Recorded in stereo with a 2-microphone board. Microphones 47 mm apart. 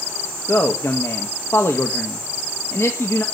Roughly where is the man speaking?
Left.